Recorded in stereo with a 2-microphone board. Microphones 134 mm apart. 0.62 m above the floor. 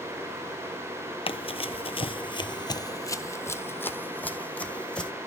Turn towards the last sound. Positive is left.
turn(degrees=10)  # may be behind; listen again after turning